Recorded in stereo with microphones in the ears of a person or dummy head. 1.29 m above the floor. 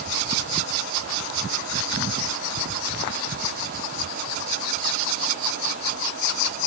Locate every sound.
Only background noise.